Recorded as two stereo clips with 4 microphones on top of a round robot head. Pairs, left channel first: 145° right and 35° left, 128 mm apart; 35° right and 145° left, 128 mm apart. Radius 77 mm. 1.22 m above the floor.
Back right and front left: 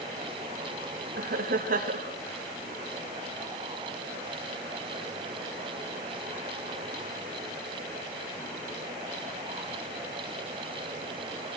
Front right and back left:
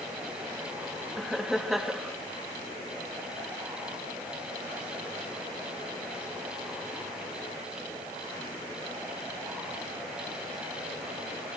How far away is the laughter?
About 1.7 m.